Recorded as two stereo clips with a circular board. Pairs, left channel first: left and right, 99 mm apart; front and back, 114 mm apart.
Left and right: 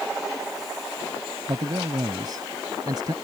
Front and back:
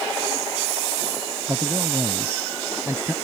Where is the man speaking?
120° right.